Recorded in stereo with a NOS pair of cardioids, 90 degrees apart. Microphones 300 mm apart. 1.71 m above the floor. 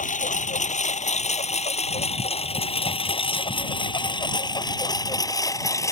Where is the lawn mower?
25° left; by 5.9 s 10° left.